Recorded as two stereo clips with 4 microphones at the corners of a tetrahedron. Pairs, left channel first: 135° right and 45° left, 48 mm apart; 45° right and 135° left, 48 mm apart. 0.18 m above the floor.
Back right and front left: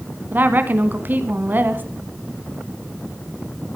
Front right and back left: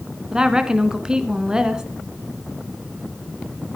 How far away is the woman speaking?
About 1.7 m.